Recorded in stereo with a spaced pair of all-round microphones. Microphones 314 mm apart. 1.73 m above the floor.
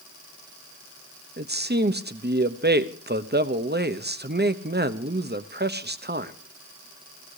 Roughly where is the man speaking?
Right.